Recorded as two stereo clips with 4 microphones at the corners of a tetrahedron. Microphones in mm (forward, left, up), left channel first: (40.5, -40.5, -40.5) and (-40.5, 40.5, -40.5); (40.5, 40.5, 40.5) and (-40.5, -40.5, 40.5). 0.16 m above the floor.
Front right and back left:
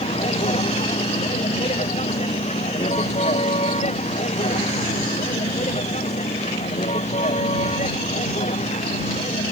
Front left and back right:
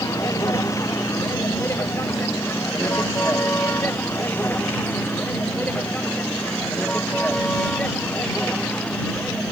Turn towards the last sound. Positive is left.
turn(degrees=-35)